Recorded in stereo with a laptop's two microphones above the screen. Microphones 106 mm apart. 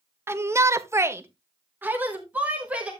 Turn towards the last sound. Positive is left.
turn(degrees=-10)  # may be behind; listen again after turning